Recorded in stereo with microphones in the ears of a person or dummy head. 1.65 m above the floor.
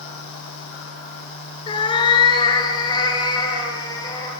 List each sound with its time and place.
1.7 s a cat meowing: 25° left (ahead or behind), 3 m; by 4.3 s 20° left (ahead or behind), 5 m